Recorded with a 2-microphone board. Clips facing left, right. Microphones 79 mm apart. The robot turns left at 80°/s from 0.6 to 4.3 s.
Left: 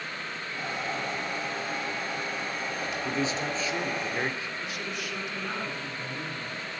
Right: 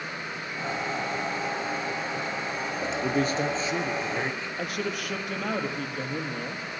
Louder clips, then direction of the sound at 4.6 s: Right 4 dB; 55° right (ahead or behind).